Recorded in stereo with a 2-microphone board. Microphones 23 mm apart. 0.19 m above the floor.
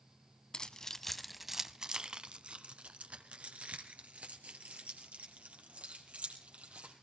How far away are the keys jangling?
About 0.8 m.